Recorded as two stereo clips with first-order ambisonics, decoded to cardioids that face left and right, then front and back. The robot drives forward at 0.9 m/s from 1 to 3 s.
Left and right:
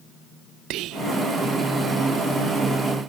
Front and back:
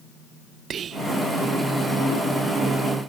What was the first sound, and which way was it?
Whispering, 120° right.